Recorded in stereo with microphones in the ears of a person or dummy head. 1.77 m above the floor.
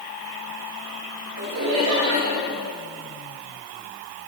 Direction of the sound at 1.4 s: 85° right.